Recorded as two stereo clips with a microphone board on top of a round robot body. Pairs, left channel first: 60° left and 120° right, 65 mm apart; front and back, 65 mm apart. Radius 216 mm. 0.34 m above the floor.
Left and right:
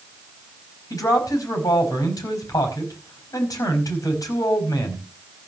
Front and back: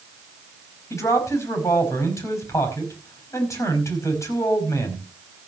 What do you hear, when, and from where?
0.9 s a man speaking: 35° left, 5 m